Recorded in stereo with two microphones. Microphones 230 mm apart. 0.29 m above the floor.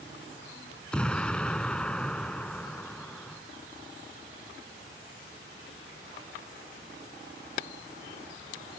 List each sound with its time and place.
0.9 s an explosion: 5° left (ahead or behind)